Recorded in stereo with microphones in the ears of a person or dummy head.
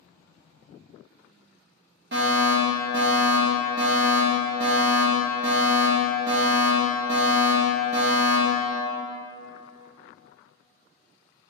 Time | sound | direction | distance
2.1 | a fire alarm | 45° right (ahead or behind) | 0.6 m